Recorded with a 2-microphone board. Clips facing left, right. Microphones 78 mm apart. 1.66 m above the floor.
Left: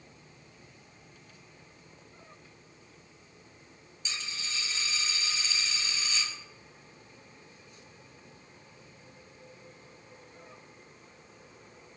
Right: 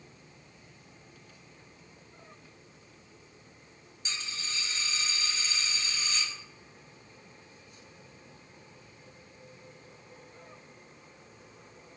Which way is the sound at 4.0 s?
40° right (ahead or behind).